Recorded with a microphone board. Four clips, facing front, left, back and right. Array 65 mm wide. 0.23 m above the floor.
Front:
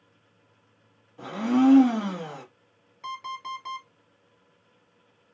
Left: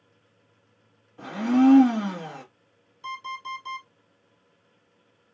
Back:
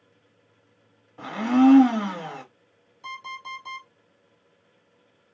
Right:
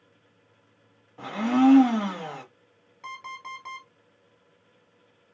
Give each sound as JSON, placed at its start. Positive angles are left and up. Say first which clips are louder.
{"t": 1.2, "sound": "a blender", "louder": "left 1 dB, back 3 dB", "azimuth_deg": -140, "distance_m": 0.9}
{"t": 3.0, "sound": "an alarm clock", "louder": "left 4 dB, front 2 dB", "azimuth_deg": -60, "distance_m": 1.3}